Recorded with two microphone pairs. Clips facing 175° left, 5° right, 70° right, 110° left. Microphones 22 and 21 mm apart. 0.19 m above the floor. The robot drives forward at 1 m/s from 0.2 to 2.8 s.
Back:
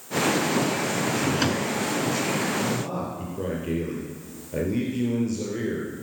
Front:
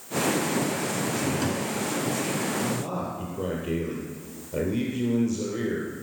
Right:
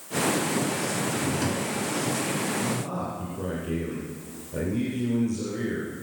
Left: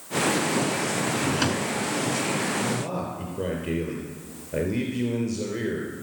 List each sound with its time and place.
1.1 s a drawer: 135° left, 0.6 m; by 1.7 s 160° left, 1.1 m
2.6 s a man speaking: 110° left, 3 m; by 5.9 s 115° left, 3 m